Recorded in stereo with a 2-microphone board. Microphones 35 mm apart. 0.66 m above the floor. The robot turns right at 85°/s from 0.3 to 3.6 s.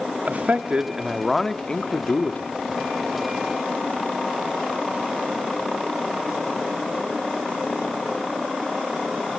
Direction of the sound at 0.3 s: 80° right.